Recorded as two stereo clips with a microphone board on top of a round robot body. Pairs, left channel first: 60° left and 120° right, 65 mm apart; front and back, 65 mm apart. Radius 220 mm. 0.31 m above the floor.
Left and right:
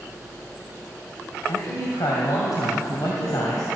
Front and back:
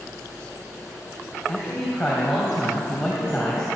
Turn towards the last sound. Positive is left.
turn(degrees=95)